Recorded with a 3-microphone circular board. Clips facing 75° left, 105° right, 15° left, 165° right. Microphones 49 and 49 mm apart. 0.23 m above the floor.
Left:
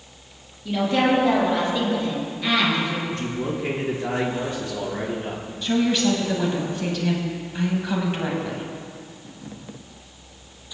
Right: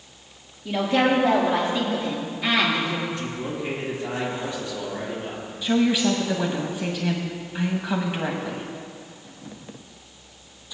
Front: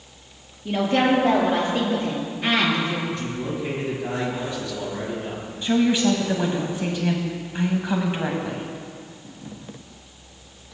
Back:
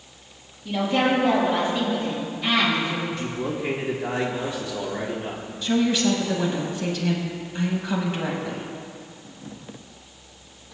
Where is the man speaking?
125° left, 4 m.